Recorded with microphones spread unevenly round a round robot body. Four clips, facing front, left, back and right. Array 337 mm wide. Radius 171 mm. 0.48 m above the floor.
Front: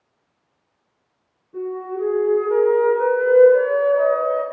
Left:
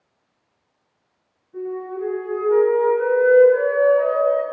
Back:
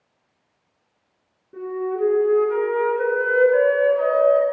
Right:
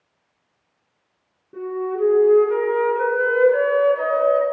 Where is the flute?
115° right, 6 m.